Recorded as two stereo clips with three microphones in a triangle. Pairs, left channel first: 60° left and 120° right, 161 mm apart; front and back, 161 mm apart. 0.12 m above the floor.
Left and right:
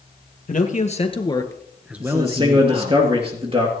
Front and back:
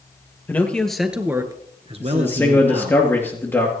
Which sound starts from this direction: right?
A man speaking, at 2.0 s.